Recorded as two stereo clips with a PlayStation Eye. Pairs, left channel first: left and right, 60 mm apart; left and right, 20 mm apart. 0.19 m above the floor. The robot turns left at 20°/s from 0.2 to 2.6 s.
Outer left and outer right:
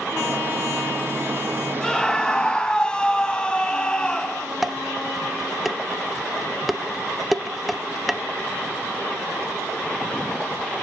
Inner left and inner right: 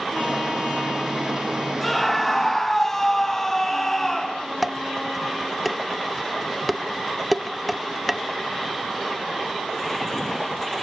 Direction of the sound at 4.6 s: Centre (ahead or behind).